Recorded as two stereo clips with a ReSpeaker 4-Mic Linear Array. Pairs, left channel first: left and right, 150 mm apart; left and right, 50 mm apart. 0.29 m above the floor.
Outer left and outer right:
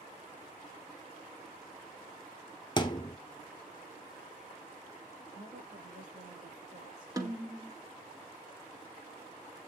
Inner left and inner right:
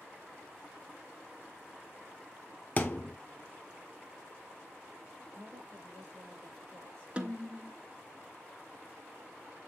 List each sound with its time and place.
2.8 s a thud: 30° left (ahead or behind), 0.8 m
5.3 s a woman speaking: 75° right (ahead or behind), 5.5 m
7.2 s a snare drum: 25° right (ahead or behind), 1.0 m